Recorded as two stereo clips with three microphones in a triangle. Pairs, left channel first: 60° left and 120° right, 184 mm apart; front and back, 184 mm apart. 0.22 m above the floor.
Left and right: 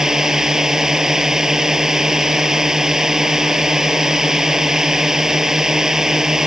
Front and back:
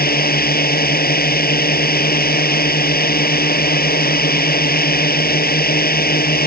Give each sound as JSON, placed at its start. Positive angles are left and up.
{"t": 0.0, "sound": "a drone", "azimuth_deg": -35}